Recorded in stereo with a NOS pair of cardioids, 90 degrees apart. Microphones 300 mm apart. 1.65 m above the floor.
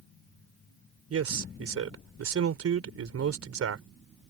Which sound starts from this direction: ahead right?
A man speaking, at 1.1 s.